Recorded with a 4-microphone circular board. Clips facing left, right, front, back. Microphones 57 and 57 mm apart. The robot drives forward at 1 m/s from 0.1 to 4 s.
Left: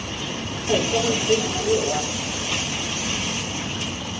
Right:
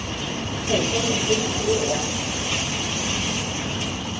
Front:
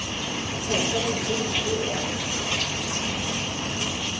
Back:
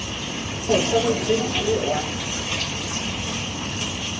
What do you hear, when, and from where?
0.7 s a microwave: 165° left, 3.5 m; by 2.0 s 170° left, 4.5 m